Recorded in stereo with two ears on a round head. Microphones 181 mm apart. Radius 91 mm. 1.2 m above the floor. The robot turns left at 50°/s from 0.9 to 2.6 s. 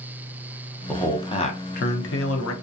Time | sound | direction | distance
0.9 | a man speaking | 175° left | 0.6 m